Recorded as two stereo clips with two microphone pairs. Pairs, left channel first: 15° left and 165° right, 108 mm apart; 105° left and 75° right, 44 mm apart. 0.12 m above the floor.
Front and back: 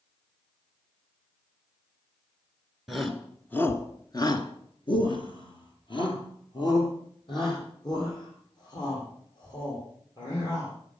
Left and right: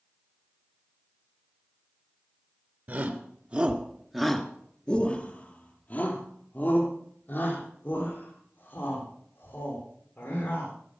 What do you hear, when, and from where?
2.9 s a shout: 75° right, 1.8 m; by 10.7 s 60° left, 8.5 m